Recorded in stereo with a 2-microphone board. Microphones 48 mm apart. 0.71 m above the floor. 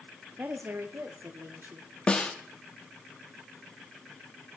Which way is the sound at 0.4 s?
45° right (ahead or behind).